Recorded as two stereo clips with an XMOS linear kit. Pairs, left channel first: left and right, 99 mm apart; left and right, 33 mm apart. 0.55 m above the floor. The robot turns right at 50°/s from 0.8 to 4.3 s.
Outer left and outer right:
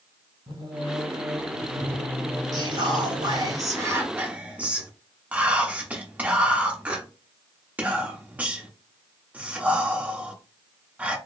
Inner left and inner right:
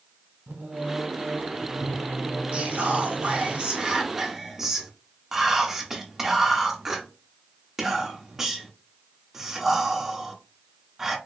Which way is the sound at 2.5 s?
40° right (ahead or behind).